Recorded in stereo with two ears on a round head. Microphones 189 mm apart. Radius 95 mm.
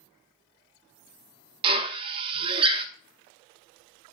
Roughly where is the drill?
Right.